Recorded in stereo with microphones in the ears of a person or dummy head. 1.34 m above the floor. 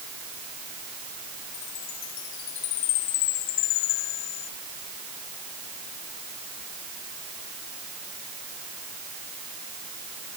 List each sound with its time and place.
1.5 s a chime: 85° left